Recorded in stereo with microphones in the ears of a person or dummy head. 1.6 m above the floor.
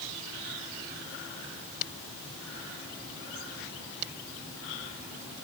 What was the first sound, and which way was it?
Only background noise.